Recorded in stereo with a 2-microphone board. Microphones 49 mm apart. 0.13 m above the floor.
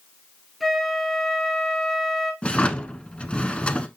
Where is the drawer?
25° left (ahead or behind), 0.8 m.